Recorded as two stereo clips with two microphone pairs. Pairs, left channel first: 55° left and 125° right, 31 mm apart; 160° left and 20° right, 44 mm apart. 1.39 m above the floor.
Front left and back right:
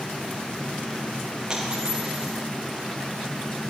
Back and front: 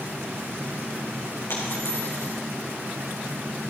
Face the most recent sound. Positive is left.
turn(degrees=175)